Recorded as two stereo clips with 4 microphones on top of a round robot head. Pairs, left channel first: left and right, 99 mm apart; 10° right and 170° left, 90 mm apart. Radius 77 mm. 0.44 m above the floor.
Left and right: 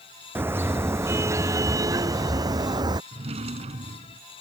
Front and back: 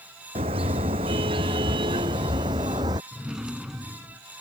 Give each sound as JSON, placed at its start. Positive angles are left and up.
{"t": 0.3, "sound": "a car horn", "azimuth_deg": -160}
{"t": 3.1, "sound": "a drawer", "azimuth_deg": -105}